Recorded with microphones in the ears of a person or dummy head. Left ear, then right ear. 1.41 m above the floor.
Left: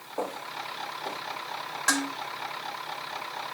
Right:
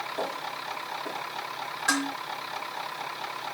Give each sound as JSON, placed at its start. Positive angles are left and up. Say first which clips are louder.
{"t": 0.2, "sound": "footsteps", "louder": "right 1 dB", "side_deg": 20, "distance_m": 4.0}
{"t": 1.9, "sound": "dishes clattering", "louder": "even", "side_deg": 45, "distance_m": 3.5}